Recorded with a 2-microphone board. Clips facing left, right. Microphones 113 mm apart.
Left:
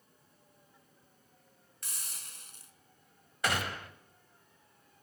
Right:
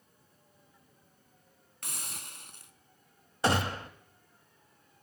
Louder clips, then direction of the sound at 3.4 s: Right 5 dB; 30° right (ahead or behind).